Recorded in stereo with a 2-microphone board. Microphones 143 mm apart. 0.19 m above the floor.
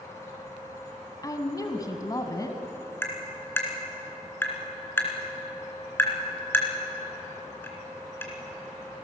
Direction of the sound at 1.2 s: 25° left (ahead or behind).